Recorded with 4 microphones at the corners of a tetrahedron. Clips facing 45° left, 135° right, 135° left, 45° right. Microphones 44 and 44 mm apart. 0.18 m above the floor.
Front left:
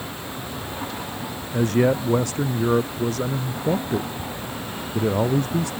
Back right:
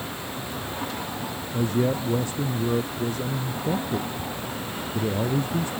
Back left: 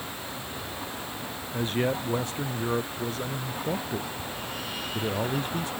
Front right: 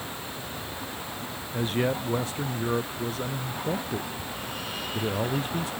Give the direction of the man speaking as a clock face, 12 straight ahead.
11 o'clock.